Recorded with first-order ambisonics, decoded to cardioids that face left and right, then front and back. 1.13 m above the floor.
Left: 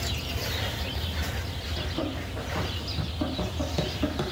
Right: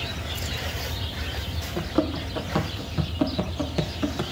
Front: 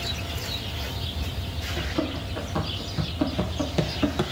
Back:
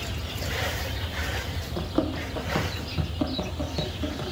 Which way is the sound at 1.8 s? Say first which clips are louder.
Right 7 dB, back 2 dB; 130° right.